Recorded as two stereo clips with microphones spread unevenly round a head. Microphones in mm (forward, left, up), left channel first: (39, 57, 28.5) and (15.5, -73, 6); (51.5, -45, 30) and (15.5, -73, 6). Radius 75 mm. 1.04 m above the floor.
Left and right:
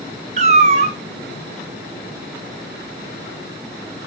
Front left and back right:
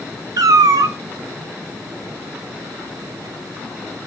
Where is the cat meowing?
155° right, 0.6 m.